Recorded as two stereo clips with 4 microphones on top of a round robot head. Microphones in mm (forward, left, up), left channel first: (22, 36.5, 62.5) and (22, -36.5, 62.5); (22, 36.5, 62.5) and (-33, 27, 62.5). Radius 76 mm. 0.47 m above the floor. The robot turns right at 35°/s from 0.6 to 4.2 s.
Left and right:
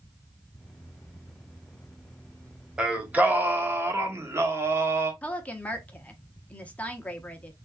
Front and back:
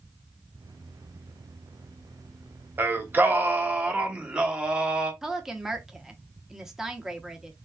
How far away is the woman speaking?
About 1.0 m.